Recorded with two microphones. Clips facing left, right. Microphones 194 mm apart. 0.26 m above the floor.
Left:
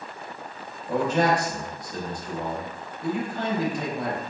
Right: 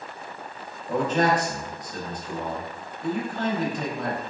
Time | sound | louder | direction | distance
0.9 | a man speaking | even | 10° left (ahead or behind) | 0.9 m